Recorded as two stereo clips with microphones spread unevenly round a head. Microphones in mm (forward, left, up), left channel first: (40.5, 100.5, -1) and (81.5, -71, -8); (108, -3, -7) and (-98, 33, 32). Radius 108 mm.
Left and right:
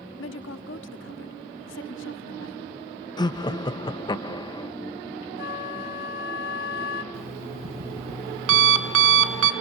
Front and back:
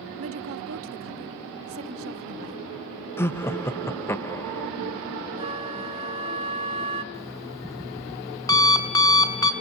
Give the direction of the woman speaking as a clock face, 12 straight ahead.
7 o'clock.